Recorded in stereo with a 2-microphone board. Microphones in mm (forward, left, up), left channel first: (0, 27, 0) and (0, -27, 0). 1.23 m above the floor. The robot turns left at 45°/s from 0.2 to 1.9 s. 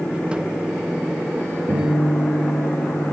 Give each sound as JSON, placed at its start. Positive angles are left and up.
{"t": 1.7, "sound": "a guitar", "side_deg": -75, "distance_m": 5.0}